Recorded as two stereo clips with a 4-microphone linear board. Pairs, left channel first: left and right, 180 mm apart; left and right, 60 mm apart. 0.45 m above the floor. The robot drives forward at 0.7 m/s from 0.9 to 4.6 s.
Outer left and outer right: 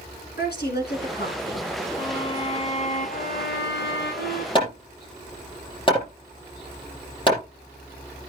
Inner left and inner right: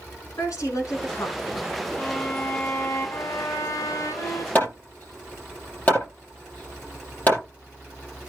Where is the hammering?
30° left (ahead or behind), 5.5 m.